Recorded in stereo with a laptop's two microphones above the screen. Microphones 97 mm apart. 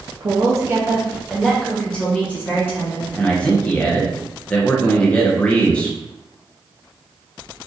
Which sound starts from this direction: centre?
A man speaking, at 3.2 s.